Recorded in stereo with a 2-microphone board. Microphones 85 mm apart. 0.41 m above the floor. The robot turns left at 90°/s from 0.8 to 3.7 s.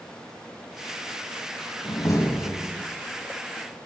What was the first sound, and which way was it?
A door slam, 65° left.